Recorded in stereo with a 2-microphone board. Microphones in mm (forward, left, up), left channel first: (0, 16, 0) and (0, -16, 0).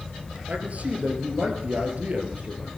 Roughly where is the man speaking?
Right.